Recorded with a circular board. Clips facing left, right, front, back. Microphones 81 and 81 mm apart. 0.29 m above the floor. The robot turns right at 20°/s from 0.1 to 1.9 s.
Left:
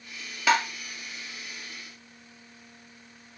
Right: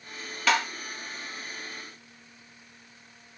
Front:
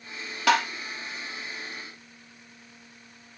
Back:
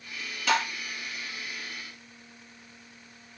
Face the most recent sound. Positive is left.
turn(degrees=40)